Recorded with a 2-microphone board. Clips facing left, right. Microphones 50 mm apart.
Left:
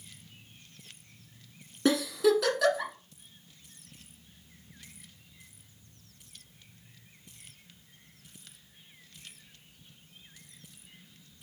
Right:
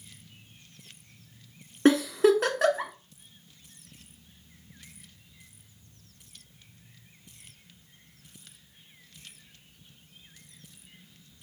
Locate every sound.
1.9 s a giggle: 45° right (ahead or behind), 1.0 m